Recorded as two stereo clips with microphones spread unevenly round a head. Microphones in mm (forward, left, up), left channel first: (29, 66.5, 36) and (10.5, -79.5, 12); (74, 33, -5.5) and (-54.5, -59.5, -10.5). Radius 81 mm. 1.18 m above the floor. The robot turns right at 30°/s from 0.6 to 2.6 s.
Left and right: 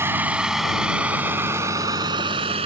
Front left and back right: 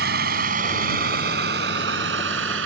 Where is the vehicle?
175° right; by 2.7 s 155° right.